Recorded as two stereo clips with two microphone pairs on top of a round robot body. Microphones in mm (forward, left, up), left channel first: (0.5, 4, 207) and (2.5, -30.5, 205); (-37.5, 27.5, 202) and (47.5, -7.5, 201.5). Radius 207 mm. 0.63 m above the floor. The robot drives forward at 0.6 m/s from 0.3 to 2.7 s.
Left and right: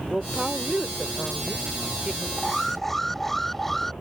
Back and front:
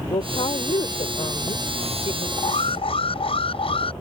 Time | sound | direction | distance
0.1 | a woman speaking | 170° right | ?
2.4 | an alarm | 175° left | ?